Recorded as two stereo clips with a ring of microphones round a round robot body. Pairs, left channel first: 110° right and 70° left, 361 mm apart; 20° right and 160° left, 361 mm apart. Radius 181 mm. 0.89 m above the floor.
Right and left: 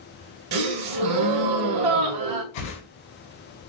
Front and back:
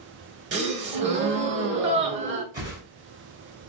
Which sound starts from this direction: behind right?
A whoosh, at 2.5 s.